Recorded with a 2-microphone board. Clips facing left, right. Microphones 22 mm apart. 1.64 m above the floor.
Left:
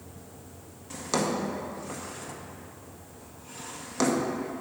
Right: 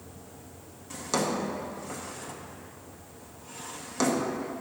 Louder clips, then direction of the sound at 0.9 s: Left 1 dB; 10° left (ahead or behind).